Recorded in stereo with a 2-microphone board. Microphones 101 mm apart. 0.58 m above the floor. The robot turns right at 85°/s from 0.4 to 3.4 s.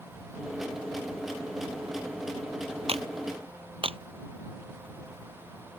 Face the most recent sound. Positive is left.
turn(degrees=-65)  # may be behind; listen again after turning